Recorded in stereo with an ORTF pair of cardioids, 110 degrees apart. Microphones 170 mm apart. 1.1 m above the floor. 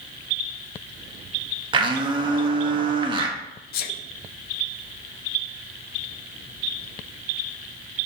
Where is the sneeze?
70° left, 0.8 m.